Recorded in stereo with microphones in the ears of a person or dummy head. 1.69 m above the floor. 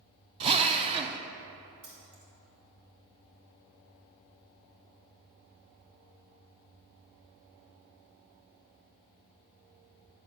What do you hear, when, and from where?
0.4 s a drill: 30° right (ahead or behind), 0.7 m
1.8 s keys jangling: 60° right (ahead or behind), 2.5 m